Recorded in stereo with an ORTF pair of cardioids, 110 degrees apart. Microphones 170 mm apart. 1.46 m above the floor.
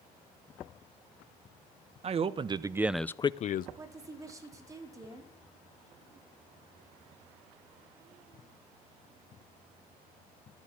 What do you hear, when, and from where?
2.0 s a man speaking: 40° right, 1.4 m; by 3.7 s 65° left, 0.8 m
3.8 s a woman speaking: 20° right, 4 m